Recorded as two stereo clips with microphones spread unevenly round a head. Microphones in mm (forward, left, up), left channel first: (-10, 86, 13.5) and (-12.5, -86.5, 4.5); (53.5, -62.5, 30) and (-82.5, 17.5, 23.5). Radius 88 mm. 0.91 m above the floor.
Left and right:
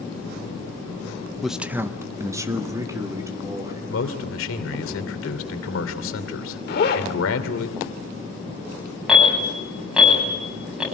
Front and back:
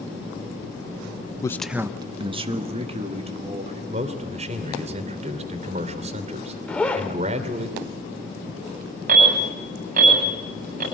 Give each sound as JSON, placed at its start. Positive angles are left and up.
{"t": 1.4, "sound": "a man speaking", "azimuth_deg": -5, "distance_m": 0.7}
{"t": 3.9, "sound": "a man speaking", "azimuth_deg": 95, "distance_m": 2.5}
{"t": 6.7, "sound": "a zipper", "azimuth_deg": 50, "distance_m": 1.4}
{"t": 9.1, "sound": "an alarm", "azimuth_deg": -175, "distance_m": 8.5}